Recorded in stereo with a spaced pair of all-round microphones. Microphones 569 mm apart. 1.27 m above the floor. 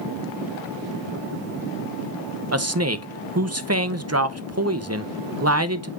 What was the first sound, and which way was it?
A man speaking, 25° right (ahead or behind).